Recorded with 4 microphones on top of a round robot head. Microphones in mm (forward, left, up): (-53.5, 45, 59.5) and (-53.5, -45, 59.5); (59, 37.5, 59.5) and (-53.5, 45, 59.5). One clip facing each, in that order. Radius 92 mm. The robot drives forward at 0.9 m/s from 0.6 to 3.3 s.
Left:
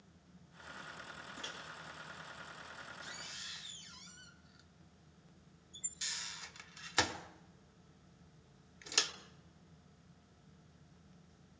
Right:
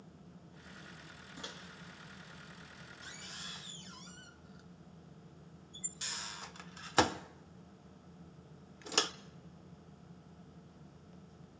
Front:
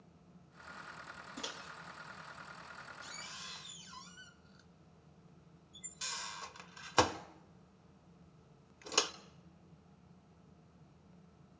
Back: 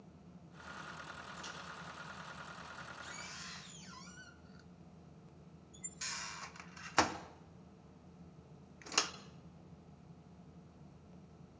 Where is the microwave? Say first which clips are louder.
Left 1 dB, front 1 dB; 15° right, 2 m; by 9.1 s 70° right, 0.9 m.